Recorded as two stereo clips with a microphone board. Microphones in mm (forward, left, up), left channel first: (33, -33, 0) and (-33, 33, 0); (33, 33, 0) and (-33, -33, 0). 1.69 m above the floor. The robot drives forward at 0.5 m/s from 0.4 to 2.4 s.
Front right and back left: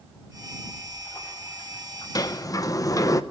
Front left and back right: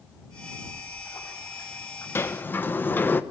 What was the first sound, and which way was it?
A splash, 10° right.